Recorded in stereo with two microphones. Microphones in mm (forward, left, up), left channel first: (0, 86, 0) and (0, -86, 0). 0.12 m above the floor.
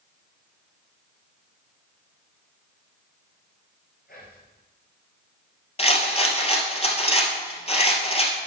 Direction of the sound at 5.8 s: 35° left (ahead or behind).